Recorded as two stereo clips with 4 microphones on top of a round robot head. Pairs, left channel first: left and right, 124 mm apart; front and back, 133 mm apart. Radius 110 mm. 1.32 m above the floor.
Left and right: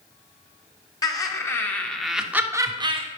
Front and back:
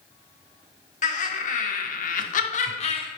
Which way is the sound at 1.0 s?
30° left.